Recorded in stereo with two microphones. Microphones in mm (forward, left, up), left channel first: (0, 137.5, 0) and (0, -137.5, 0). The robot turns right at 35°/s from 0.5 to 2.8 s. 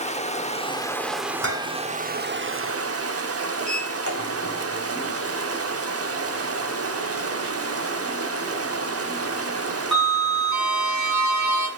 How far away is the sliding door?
About 2 m.